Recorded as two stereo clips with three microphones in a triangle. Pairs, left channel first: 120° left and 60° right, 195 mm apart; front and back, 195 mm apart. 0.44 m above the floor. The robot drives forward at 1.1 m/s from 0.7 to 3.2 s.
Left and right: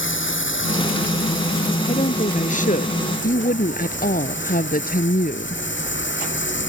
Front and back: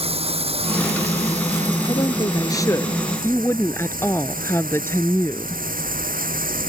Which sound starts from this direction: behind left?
Running water, at 0.0 s.